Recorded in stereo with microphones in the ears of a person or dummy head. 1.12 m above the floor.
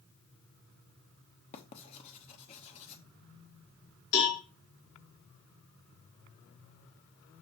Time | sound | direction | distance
1.5 | writing | 35° left (ahead or behind) | 0.8 m
4.1 | a cowbell | 70° left (ahead or behind) | 2.5 m